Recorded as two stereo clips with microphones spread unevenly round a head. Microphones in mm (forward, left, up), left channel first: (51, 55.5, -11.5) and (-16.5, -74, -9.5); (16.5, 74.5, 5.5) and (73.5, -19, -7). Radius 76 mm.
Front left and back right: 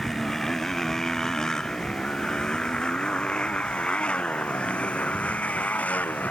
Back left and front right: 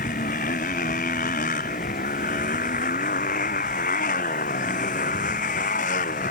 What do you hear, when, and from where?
0.0 s a motorcycle: 150° left; by 6.3 s 145° left